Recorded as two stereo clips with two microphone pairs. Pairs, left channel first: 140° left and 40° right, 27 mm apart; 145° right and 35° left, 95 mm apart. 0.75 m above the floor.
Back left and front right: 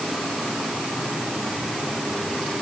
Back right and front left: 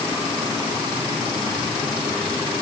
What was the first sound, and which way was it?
Only background noise.